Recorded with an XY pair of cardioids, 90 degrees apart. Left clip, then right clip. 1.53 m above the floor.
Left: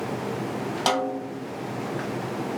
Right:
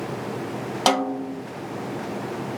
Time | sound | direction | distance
0.9 | a snare drum | 40° right | 0.6 m